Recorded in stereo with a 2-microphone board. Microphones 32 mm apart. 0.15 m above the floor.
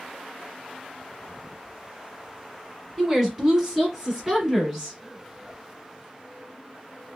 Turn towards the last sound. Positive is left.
turn(degrees=-10)  # may be behind; listen again after turning